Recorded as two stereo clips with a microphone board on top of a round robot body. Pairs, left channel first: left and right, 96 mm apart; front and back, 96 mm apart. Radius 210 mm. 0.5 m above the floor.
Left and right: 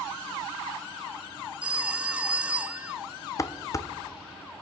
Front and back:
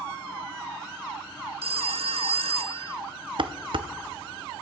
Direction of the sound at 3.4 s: 145° left.